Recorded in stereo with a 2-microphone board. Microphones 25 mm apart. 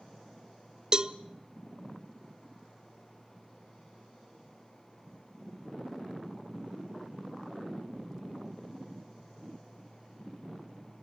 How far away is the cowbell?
About 0.6 m.